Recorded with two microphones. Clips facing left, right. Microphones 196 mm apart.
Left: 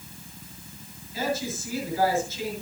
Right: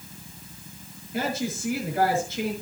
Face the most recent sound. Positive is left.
turn(degrees=-60)  # may be behind; listen again after turning